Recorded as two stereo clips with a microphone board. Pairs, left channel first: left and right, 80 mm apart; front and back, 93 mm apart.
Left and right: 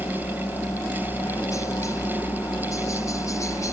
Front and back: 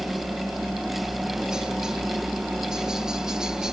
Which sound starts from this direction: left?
A helicopter, at 0.0 s.